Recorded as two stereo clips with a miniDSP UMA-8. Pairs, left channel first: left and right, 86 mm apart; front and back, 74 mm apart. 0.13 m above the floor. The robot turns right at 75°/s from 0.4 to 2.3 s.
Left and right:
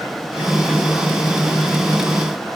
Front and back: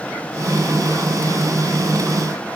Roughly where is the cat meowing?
No cat meowing in this recording.